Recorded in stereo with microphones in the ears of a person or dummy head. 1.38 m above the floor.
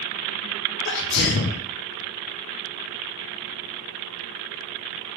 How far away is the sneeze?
About 0.5 m.